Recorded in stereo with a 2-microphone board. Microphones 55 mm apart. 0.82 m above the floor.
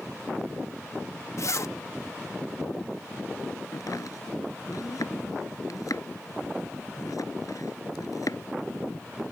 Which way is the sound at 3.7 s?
80° left.